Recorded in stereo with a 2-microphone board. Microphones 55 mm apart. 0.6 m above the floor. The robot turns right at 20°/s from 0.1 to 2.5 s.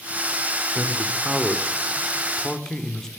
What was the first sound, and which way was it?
A man speaking, 25° right.